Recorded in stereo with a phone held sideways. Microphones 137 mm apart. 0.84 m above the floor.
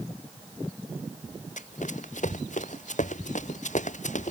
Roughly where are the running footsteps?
Left.